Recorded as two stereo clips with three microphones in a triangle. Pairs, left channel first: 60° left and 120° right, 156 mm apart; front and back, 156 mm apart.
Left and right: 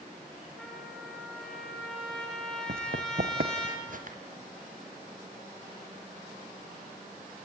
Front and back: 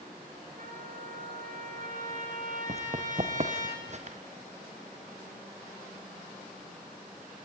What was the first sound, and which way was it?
A trumpet, 145° left.